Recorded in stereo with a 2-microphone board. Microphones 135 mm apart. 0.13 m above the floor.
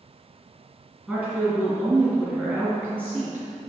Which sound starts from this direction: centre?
A woman speaking, at 1.1 s.